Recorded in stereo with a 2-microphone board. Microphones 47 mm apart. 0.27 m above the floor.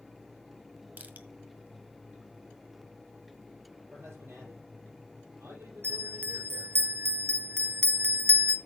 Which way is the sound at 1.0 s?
40° right (ahead or behind).